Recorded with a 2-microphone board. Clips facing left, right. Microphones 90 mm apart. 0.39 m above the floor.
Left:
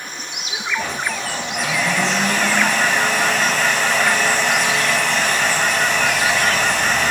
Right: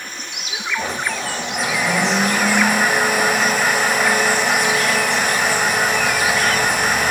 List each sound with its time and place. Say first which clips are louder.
0.8 s a blender: right 2 dB; 15° right (ahead or behind), 9.5 m